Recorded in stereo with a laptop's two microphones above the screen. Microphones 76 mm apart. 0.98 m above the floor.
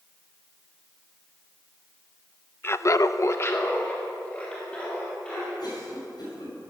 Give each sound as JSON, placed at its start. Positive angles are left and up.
{"t": 2.6, "sound": "laughter", "side_deg": 30, "distance_m": 0.6}
{"t": 5.6, "sound": "a cough", "side_deg": 65, "distance_m": 5.5}